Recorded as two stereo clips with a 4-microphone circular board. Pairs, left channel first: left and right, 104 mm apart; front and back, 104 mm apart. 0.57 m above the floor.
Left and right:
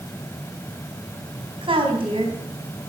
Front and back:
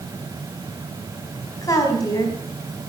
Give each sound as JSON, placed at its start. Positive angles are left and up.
{"t": 1.6, "sound": "a woman speaking", "azimuth_deg": -55, "distance_m": 4.0}